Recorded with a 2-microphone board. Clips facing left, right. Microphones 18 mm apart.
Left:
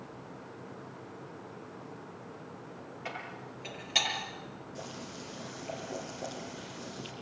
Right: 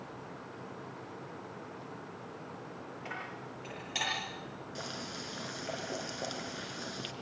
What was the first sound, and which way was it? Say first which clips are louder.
Dishes clattering: left 1 dB; 20° left (ahead or behind).